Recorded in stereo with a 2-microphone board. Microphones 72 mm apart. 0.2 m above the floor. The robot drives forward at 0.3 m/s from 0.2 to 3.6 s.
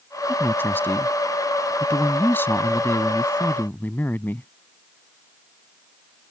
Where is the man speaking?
30° left (ahead or behind).